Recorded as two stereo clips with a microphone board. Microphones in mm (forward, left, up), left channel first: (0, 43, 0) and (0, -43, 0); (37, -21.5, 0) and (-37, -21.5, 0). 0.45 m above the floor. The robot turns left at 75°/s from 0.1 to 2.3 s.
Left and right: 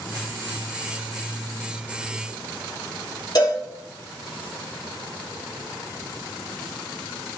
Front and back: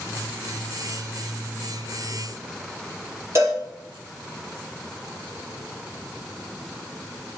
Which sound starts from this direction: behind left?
A cowbell, at 3.4 s.